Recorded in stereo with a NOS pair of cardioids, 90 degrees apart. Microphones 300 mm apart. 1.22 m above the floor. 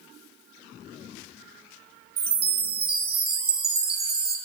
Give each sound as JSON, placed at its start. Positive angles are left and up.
{"t": 2.2, "sound": "a chime", "azimuth_deg": -35, "distance_m": 1.8}